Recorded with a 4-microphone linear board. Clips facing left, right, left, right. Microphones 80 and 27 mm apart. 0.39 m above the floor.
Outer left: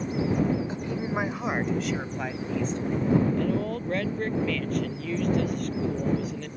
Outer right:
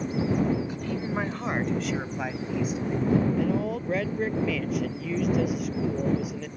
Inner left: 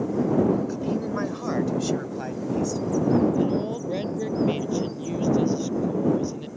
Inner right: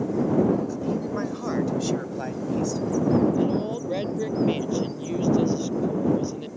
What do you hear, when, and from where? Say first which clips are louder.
0.7 s a man speaking: even, even; 30° left (ahead or behind); by 3.1 s 10° right (ahead or behind)
3.3 s a woman speaking: outer right 1 dB, even; 5° right (ahead or behind)